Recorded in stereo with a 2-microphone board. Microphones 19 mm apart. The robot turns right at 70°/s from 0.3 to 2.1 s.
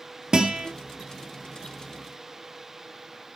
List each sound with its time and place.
0.3 s a guitar: 45° right (ahead or behind), 2.0 m; by 0.7 s 55° right (ahead or behind), 2.0 m